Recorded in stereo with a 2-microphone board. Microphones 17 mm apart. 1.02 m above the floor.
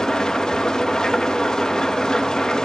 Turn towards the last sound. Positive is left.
turn(degrees=55)  # may be behind; listen again after turning